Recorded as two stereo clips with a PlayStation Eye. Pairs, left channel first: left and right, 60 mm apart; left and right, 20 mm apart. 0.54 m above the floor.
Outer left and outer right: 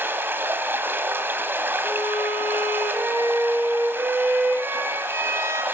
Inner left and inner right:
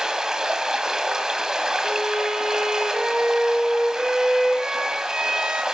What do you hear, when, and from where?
0.0 s running water: 35° right (ahead or behind), 1.7 m
1.8 s a violin: 50° right (ahead or behind), 4.5 m